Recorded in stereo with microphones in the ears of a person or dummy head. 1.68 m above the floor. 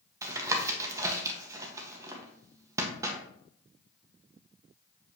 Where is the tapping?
20° right (ahead or behind), 1.4 m.